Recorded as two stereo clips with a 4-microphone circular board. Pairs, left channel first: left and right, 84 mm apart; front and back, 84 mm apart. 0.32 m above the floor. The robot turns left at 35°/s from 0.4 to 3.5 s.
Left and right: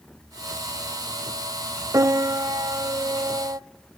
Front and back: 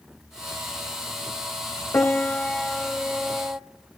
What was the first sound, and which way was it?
A piano, 60° right.